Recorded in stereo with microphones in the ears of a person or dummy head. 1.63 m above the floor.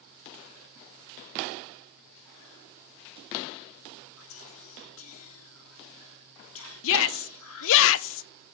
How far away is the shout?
About 0.6 m.